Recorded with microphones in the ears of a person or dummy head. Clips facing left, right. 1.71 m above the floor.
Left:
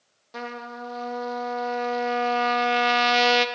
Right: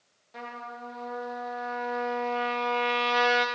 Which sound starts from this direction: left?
A trumpet, at 0.3 s.